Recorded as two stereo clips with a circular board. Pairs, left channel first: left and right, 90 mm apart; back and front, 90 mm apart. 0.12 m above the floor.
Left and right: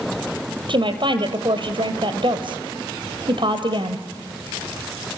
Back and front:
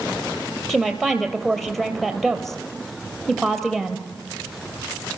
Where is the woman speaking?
95° right, 2.5 m.